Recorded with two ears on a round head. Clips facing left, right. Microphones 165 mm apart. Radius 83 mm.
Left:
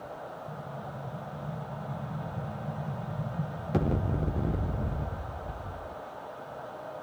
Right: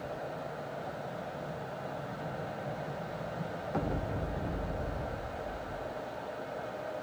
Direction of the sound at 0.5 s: 40° left (ahead or behind).